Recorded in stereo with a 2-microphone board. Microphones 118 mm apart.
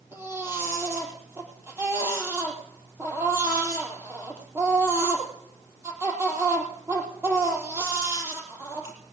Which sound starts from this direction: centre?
A baby crying, at 0.1 s.